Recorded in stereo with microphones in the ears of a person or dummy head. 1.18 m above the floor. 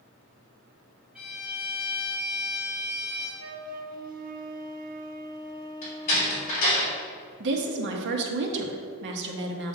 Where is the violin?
5° right (ahead or behind), 2 m.